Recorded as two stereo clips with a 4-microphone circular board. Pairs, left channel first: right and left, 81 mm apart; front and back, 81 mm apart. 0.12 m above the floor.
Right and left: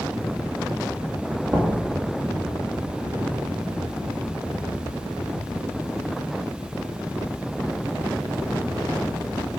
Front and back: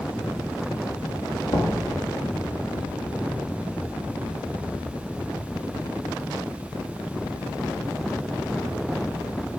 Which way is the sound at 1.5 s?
30° left.